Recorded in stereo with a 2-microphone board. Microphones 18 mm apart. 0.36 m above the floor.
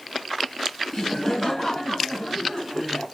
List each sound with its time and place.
0.9 s laughter: 25° left (ahead or behind), 2.5 m; by 3.0 s 50° left (ahead or behind), 2.5 m